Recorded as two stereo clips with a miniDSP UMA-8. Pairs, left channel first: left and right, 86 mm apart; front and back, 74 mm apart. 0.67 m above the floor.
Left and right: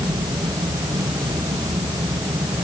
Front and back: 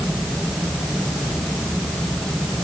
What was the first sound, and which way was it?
Only background noise.